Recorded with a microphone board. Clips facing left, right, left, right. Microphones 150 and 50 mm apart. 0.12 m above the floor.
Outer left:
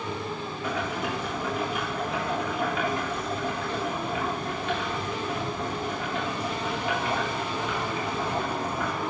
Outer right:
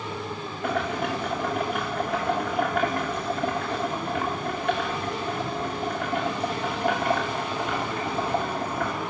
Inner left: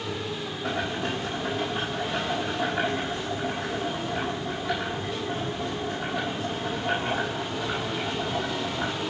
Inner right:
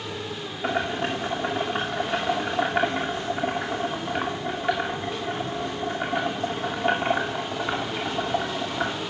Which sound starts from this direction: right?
Boiling, at 0.6 s.